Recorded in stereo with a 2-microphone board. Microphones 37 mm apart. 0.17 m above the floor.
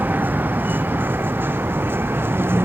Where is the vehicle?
55° right (ahead or behind); by 2.6 s 75° right (ahead or behind).